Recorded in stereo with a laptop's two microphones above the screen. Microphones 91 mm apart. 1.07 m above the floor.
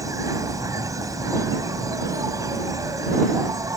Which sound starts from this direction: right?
An insect, at 0.0 s.